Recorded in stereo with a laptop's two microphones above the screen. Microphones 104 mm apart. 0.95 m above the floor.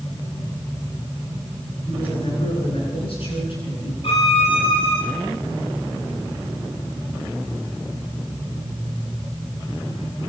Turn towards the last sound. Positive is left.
turn(degrees=65)  # may be behind; listen again after turning